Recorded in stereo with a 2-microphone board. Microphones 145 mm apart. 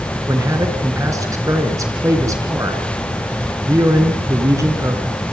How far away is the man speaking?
About 4 m.